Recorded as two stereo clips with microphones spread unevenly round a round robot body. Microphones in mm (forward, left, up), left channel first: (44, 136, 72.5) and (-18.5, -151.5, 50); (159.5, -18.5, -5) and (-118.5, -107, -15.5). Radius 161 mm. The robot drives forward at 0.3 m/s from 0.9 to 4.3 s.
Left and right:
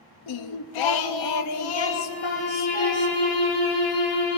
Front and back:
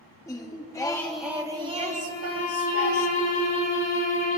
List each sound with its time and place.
0.3 s singing: 100° left, 0.5 m; by 3.1 s 145° left, 0.9 m
2.1 s a violin: 85° left, 4.5 m; by 4.4 s 90° left, 4.5 m